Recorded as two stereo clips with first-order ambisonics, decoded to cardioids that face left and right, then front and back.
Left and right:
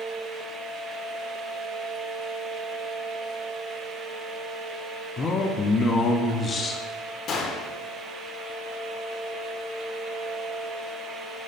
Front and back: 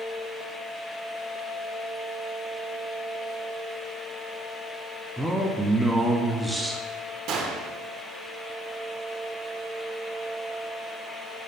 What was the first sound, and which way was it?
A man speaking, 95° left.